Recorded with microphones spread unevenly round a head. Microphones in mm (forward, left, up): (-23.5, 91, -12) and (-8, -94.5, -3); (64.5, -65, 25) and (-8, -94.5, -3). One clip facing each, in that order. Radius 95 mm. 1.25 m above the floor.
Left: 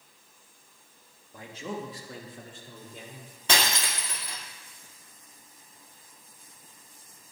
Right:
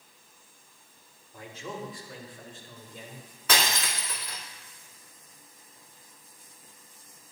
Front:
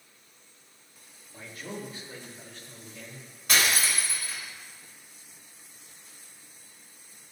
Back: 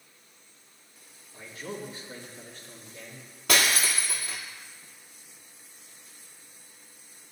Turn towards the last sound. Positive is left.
turn(degrees=160)